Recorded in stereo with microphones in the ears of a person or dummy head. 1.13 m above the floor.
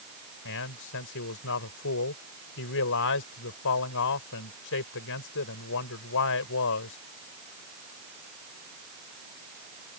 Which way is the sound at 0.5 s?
70° left (ahead or behind).